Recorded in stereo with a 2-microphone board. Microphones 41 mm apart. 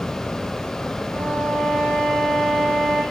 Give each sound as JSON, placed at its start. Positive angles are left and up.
{"t": 1.1, "sound": "a violin", "side_deg": 55, "distance_m": 5.5}